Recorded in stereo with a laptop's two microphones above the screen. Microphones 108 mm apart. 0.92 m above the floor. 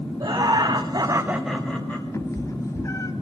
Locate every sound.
0.2 s laughter: 40° right (ahead or behind), 1.4 m; by 2.0 s 15° left (ahead or behind), 1.3 m
2.1 s a cat meowing: 30° left (ahead or behind), 0.6 m